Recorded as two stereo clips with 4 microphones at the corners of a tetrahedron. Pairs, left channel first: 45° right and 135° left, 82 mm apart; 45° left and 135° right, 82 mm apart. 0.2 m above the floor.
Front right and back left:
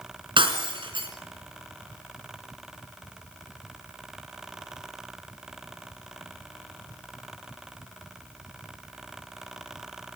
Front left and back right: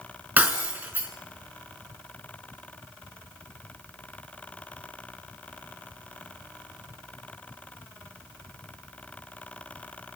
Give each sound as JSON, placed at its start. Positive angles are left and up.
{"t": 0.4, "sound": "breaking glass", "azimuth_deg": 155, "distance_m": 3.5}